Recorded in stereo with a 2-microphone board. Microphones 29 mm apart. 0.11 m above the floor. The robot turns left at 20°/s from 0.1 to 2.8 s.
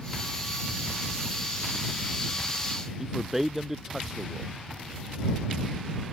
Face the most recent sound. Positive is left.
turn(degrees=-10)  # may be behind; listen again after turning